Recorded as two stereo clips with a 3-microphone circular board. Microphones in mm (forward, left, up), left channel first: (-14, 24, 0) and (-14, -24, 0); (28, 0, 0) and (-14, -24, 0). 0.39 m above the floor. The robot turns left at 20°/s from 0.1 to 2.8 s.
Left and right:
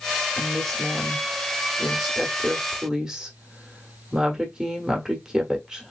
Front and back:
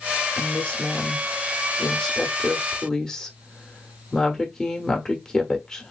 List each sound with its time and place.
0.4 s a woman speaking: 15° left, 0.9 m; by 5.9 s 35° right, 0.9 m